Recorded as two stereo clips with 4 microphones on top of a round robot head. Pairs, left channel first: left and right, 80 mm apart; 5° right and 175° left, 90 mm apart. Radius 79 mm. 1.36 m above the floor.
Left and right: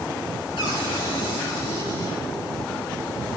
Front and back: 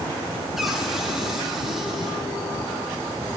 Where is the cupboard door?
90° left, 9.5 m.